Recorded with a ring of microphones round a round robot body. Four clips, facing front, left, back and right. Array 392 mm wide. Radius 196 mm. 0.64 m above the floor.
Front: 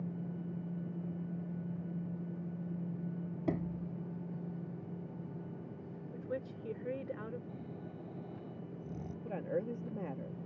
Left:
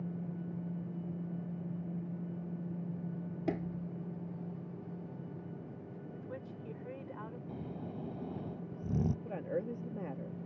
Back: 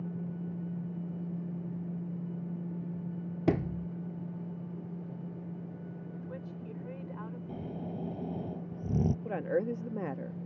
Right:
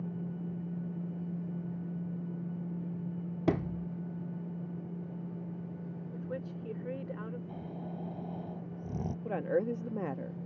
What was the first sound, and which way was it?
A sliding door, 155° right.